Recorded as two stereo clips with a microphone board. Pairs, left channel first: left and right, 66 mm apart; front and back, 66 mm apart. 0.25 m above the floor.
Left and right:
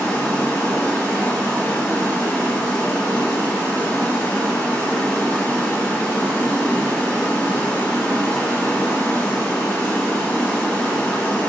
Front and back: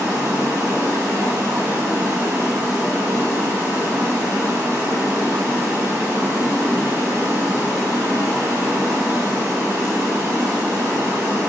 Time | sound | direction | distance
0.0 | running water | 150° left | 1.6 m